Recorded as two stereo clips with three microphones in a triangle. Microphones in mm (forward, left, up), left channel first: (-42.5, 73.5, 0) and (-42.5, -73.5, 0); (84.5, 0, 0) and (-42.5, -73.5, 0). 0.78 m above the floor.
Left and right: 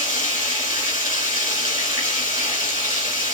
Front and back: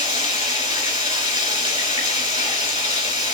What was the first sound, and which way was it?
Running water, 70° left.